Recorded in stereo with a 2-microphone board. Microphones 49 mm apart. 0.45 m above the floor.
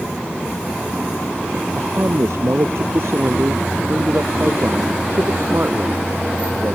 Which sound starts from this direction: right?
A man speaking, at 1.8 s.